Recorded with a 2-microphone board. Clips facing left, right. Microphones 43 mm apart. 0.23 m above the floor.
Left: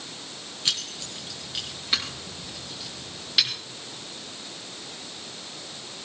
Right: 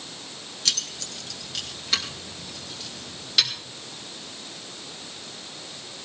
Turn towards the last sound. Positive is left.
turn(degrees=5)  # may be behind; listen again after turning